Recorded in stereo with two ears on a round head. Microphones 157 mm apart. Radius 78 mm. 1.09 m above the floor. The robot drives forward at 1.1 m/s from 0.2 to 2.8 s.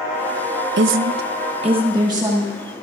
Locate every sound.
0.8 s a woman speaking: 65° right (ahead or behind), 0.6 m; by 2.5 s 15° right (ahead or behind), 1.8 m